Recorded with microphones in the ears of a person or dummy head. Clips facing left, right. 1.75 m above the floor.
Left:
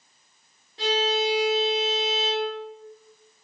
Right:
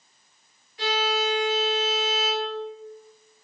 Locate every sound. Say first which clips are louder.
0.8 s a violin: left 2 dB; 35° left (ahead or behind), 2 m